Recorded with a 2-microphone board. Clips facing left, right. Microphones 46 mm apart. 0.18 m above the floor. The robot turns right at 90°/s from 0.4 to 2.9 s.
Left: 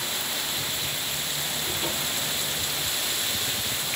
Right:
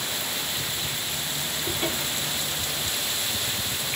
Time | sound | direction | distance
1.6 | a cupboard door | 45° right | 6 m